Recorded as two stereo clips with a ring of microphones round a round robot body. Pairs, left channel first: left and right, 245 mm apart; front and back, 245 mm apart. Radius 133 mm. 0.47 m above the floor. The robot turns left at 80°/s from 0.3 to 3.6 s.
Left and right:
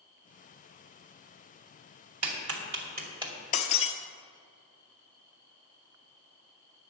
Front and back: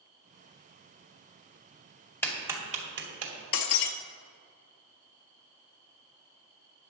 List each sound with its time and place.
2.2 s a clap: 80° right, 2.5 m; by 3.3 s 170° right, 2.5 m
3.5 s breaking glass: 35° left, 0.7 m; by 3.9 s 30° left, 0.7 m